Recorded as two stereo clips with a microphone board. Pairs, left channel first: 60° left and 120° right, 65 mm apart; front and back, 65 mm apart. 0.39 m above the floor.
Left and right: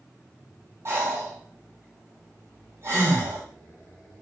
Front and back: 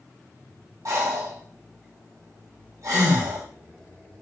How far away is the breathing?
About 2.5 m.